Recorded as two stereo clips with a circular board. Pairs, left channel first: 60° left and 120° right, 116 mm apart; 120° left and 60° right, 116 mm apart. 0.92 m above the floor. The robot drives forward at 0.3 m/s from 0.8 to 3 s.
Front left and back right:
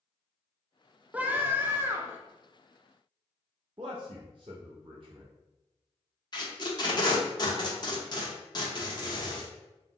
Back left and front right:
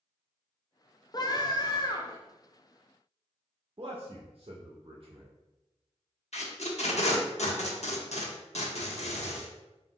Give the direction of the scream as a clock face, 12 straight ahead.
6 o'clock.